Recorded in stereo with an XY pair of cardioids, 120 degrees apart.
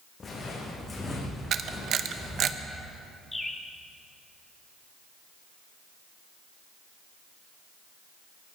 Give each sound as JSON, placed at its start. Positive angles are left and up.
{"t": 0.2, "sound": "footsteps", "azimuth_deg": 30, "distance_m": 5.0}
{"t": 1.5, "sound": "a camera shutter", "azimuth_deg": -55, "distance_m": 0.8}
{"t": 3.3, "sound": "a bird", "azimuth_deg": 10, "distance_m": 1.6}